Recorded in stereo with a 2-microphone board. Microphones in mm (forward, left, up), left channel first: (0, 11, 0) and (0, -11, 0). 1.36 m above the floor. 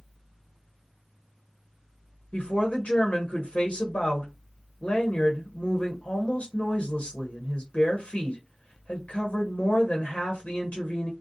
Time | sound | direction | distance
2.3 | a woman speaking | 65° left (ahead or behind) | 0.8 m